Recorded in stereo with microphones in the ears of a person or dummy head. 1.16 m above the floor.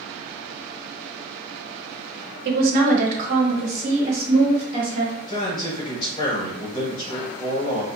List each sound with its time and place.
2.5 s a woman speaking: 60° right (ahead or behind), 1.0 m; by 5.2 s 25° right (ahead or behind), 2 m
5.3 s a man speaking: 30° left (ahead or behind), 1.2 m